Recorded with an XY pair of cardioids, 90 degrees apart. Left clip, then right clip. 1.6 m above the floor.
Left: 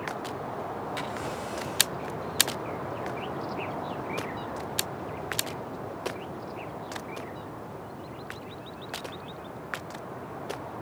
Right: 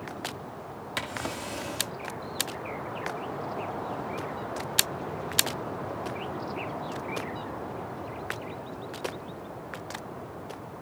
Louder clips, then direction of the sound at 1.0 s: Even; 65° right.